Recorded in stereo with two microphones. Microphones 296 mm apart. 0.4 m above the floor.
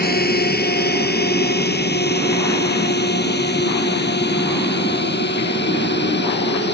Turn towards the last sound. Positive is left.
turn(degrees=35)  # may be behind; listen again after turning